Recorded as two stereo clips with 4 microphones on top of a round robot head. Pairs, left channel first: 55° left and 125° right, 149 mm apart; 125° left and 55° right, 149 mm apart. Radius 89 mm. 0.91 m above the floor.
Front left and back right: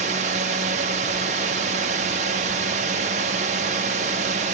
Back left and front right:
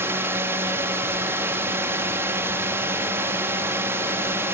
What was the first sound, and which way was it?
A drone, 125° right.